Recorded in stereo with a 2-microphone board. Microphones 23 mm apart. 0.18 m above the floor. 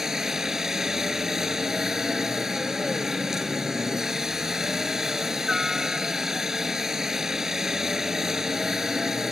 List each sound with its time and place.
0.0 s a helicopter: 20° right (ahead or behind)